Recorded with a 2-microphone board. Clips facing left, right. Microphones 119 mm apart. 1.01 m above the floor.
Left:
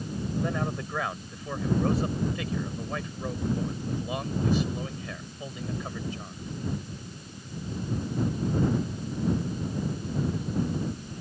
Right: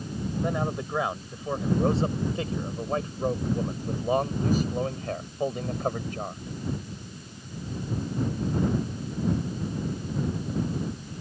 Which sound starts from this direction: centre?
A man speaking, at 0.4 s.